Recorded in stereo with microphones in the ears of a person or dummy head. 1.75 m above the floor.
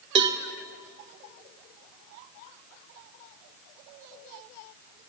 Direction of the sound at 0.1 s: 30° right (ahead or behind).